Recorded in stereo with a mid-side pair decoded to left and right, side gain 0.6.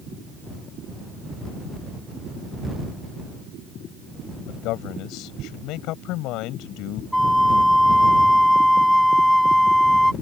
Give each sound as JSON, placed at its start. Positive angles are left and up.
{"t": 4.5, "sound": "a man speaking", "azimuth_deg": 70}
{"t": 7.1, "sound": "a flute", "azimuth_deg": 5}